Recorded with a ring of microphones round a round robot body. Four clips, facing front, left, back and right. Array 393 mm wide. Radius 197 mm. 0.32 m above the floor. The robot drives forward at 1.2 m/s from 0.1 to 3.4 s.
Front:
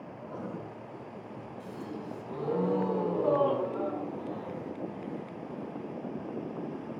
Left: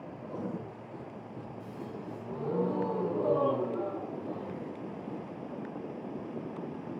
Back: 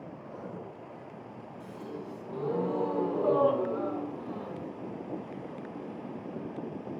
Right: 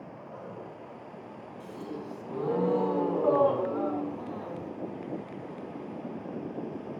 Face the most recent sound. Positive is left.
turn(degrees=-105)